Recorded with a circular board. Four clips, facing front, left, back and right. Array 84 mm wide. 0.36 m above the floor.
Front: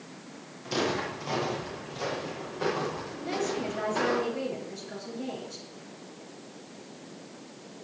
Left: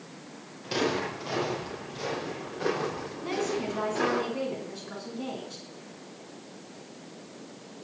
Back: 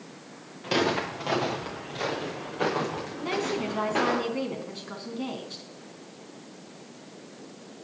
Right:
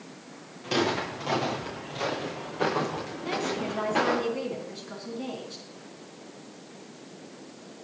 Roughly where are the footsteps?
Behind.